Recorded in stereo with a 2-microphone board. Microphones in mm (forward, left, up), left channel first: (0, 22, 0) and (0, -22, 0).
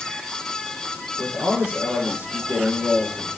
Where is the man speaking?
80° right, 9 m.